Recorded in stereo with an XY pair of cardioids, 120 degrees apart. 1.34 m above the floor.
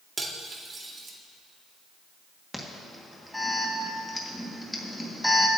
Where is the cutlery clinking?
30° right, 1.9 m.